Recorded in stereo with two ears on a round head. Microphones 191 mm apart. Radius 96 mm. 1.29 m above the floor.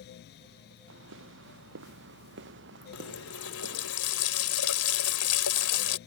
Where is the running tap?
75° left (ahead or behind).